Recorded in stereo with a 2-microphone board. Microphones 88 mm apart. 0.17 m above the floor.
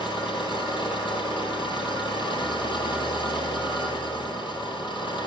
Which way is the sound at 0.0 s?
65° left (ahead or behind).